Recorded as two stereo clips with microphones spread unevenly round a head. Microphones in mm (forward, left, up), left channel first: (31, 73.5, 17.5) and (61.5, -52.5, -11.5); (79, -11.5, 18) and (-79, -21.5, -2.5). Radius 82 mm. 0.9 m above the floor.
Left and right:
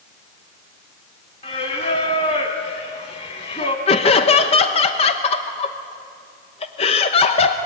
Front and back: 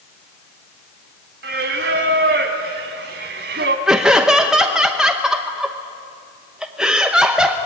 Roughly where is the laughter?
Behind left.